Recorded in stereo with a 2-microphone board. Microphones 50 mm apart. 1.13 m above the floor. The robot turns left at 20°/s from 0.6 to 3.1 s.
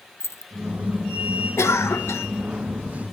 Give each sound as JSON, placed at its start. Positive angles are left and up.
{"t": 0.2, "sound": "keys jangling", "side_deg": 55, "distance_m": 0.6}
{"t": 1.6, "sound": "a cough", "side_deg": 65, "distance_m": 0.9}